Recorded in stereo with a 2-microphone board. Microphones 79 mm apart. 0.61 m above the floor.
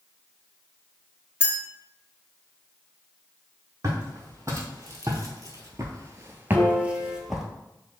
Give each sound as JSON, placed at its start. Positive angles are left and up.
{"t": 1.4, "sound": "a clink", "side_deg": -15, "distance_m": 1.6}
{"t": 3.8, "sound": "footsteps", "side_deg": -35, "distance_m": 1.7}
{"t": 6.5, "sound": "a piano", "side_deg": 5, "distance_m": 1.8}